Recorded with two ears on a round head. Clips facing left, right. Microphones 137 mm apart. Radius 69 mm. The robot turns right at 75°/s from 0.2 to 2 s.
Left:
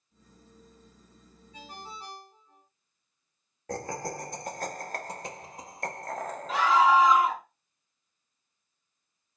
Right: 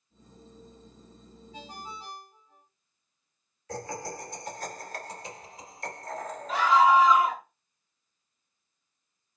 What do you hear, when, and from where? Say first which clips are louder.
1.5 s a ringtone: right 1 dB; 25° right, 1.4 m; by 2.6 s 10° left, 1.4 m
3.7 s laughter: left 2 dB; 40° left (ahead or behind), 1.1 m
6.5 s a scream: right 1 dB; 65° left (ahead or behind), 3 m